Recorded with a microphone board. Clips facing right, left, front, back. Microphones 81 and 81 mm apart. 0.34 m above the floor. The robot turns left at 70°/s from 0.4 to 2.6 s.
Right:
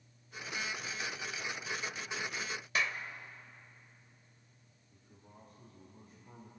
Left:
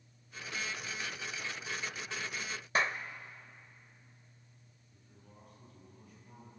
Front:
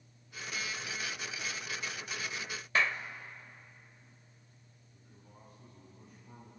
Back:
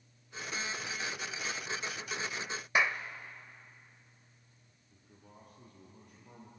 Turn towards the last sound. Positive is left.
turn(degrees=-150)